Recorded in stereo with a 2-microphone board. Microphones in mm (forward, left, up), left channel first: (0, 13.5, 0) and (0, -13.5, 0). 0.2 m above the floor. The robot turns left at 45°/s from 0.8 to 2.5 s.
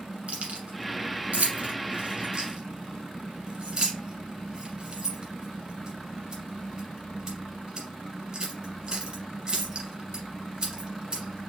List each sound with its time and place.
0.3 s keys jangling: 50° right (ahead or behind), 1.5 m; by 11.5 s 35° right (ahead or behind), 1.5 m